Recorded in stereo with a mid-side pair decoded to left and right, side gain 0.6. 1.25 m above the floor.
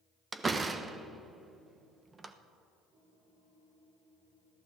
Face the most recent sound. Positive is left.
turn(degrees=-20)